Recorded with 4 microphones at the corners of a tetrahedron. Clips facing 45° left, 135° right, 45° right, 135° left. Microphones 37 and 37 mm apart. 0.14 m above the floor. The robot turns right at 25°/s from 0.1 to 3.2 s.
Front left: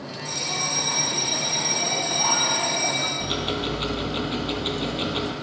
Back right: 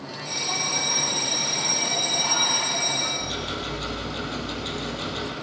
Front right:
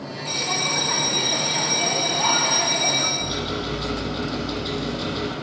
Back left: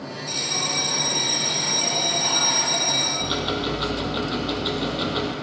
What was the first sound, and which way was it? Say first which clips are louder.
A bell: even, front right 3 dB; 65° right.